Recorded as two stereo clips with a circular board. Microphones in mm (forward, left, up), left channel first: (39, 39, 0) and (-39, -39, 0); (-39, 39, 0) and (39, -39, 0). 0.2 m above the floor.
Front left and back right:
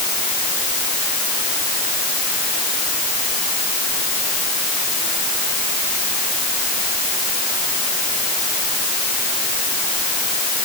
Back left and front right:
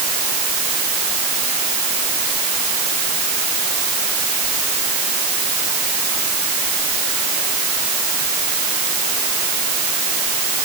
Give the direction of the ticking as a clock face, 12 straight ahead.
No ticking in this recording.